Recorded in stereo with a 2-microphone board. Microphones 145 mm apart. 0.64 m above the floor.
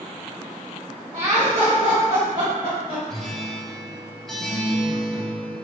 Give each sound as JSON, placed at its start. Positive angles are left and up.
{"t": 1.1, "sound": "laughter", "side_deg": -45, "distance_m": 1.3}
{"t": 3.1, "sound": "a guitar", "side_deg": 0, "distance_m": 0.8}